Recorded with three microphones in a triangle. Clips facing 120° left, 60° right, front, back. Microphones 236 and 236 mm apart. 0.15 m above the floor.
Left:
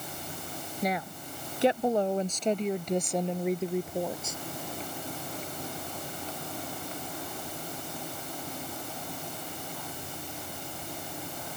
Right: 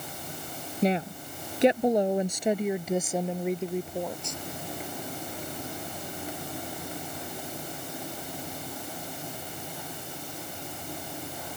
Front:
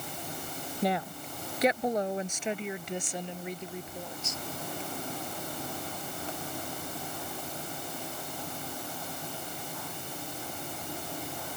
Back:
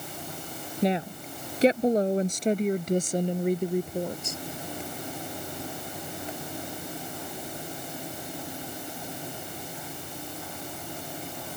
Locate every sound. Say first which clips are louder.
0.8 s a woman speaking: right 6 dB, back 5 dB; 115° right; by 4.4 s 160° right